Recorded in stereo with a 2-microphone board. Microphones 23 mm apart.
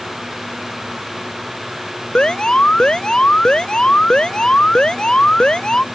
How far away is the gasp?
No gasp in this recording.